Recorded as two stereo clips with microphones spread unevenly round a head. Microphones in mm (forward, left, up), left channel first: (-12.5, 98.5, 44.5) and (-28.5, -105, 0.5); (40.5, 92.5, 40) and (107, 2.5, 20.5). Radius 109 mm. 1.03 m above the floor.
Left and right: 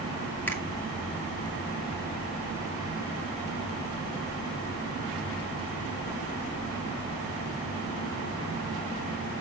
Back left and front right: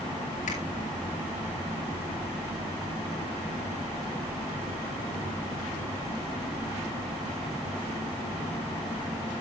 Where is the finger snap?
170° left, 2 m.